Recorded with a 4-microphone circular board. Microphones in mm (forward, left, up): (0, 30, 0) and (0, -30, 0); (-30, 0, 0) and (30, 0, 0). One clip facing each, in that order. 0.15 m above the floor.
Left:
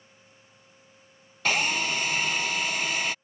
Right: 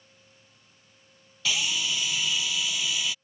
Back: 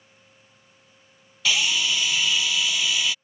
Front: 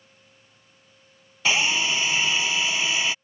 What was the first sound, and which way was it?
A drill, 55° left.